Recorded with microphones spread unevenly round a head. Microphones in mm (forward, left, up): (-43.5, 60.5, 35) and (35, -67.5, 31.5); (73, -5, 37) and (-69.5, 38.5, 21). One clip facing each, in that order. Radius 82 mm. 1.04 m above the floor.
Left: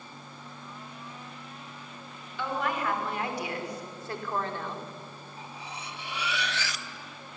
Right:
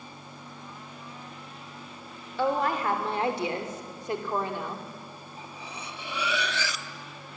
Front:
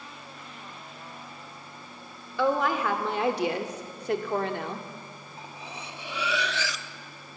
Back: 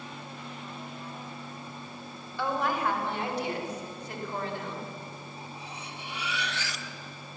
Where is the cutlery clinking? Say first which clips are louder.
Even, front 1 dB; 45° right, 1.0 m.